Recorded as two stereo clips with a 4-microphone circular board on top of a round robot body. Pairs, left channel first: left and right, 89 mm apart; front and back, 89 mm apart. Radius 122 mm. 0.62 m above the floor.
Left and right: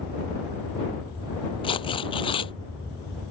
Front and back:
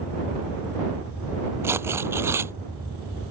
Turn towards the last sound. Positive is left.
turn(degrees=115)